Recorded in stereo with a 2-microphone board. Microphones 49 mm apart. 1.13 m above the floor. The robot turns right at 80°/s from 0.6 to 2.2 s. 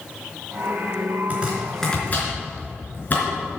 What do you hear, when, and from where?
1.3 s chopping: 35° right (ahead or behind), 3.5 m; by 3.2 s 35° left (ahead or behind), 3.5 m